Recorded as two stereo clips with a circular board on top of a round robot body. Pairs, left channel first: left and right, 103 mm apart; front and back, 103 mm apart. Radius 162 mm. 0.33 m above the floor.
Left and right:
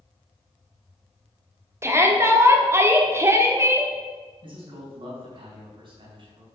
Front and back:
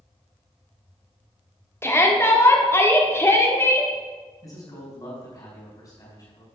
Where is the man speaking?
55° right, 4 m.